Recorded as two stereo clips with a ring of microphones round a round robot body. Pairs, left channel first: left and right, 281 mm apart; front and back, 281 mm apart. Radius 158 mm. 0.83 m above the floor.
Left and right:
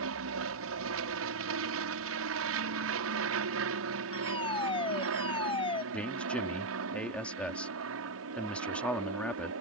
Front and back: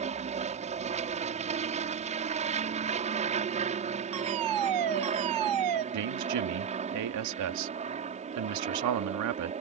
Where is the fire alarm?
165° left.